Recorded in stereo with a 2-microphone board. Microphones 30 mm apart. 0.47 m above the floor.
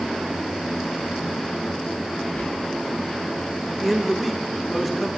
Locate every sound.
2.4 s whispering: 55° left (ahead or behind), 1.7 m
3.7 s a man speaking: centre (ahead or behind), 1.1 m